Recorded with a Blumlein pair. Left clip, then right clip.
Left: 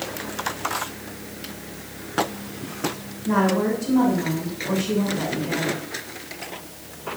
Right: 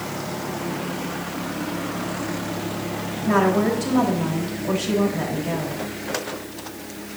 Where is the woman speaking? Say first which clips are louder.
Right 2 dB; 60° right, 3.5 m.